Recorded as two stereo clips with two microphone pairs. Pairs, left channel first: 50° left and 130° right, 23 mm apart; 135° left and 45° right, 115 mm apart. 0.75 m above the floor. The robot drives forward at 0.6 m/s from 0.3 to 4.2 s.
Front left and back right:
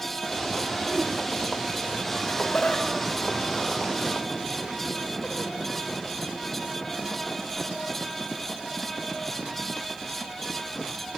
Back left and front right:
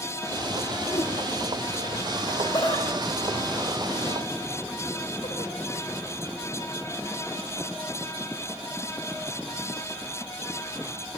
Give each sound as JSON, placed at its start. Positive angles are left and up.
{"t": 0.9, "sound": "a whoosh", "azimuth_deg": 90, "distance_m": 1.2}
{"t": 2.2, "sound": "laughter", "azimuth_deg": 80, "distance_m": 2.5}